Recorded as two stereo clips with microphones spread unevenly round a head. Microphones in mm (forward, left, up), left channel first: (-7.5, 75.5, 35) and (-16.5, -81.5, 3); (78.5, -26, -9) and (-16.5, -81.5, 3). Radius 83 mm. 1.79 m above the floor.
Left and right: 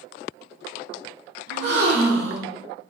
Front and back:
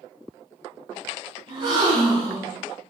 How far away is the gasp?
About 6.5 m.